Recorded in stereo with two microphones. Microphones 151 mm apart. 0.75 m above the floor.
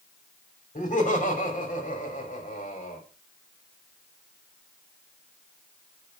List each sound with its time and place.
0.8 s laughter: 60° left (ahead or behind), 3 m